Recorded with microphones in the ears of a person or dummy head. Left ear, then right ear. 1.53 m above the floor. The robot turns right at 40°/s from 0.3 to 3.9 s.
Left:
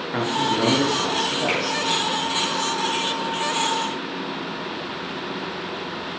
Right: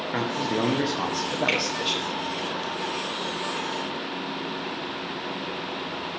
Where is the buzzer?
No buzzer in this recording.